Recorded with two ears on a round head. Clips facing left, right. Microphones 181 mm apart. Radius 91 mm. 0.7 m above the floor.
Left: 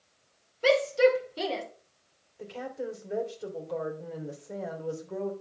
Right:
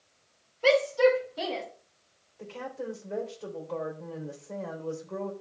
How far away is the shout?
About 2.5 m.